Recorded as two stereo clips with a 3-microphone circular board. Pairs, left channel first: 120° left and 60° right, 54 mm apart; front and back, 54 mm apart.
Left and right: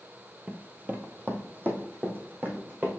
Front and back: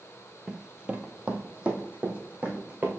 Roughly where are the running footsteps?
Right.